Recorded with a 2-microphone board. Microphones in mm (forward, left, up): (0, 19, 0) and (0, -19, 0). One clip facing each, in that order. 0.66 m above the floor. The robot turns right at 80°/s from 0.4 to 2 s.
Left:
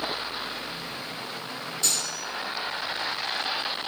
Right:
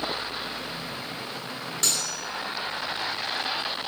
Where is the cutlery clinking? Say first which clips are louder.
Right 1 dB; 65° right (ahead or behind), 0.8 m; by 2.2 s 55° right (ahead or behind), 0.8 m.